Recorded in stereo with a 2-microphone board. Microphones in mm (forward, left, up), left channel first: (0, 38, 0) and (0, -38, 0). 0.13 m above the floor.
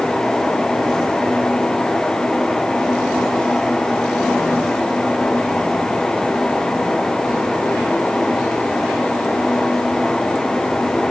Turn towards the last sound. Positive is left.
No sound to turn to.